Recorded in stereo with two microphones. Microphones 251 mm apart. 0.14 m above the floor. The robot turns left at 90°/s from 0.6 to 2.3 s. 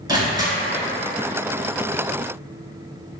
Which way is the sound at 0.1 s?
15° right (ahead or behind).